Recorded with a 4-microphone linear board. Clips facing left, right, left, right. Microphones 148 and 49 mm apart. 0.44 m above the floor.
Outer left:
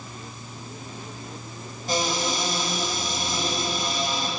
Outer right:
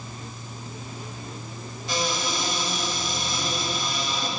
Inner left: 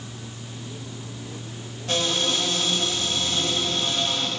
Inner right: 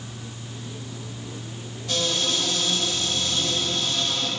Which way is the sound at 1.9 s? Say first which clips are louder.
Outer left 2 dB, inner left 1 dB; 45° left (ahead or behind).